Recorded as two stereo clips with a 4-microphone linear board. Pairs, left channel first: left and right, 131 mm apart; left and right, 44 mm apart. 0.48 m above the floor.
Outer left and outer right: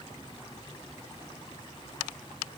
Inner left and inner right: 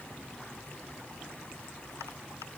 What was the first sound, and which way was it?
Only background noise.